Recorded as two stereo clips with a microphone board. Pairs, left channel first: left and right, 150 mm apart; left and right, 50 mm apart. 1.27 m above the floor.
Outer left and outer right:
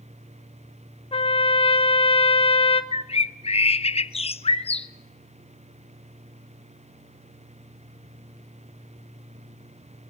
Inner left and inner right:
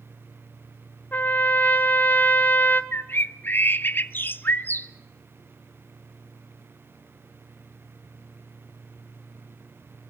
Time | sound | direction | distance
1.1 | a trumpet | 40° left (ahead or behind) | 0.9 m
2.9 | a bird | 40° left (ahead or behind) | 0.6 m